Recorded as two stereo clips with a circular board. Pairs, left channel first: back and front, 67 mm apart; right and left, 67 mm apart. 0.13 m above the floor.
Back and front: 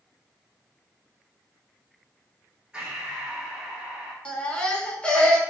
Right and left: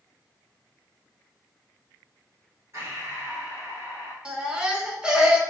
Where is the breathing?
75° left, 1.9 m.